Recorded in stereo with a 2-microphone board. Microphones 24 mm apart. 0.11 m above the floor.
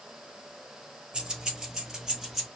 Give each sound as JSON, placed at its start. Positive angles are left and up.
{"t": 1.1, "sound": "keys jangling", "side_deg": -30, "distance_m": 1.5}